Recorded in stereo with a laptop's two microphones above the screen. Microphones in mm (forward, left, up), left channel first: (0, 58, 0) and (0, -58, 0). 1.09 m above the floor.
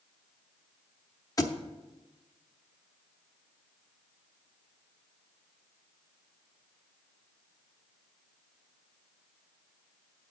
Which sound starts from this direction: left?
A thud, at 1.4 s.